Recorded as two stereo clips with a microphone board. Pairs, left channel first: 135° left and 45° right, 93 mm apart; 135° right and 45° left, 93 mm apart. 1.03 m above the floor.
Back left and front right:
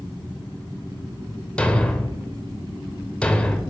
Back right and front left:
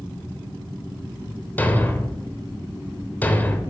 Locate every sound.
1.6 s a thud: 165° right, 0.7 m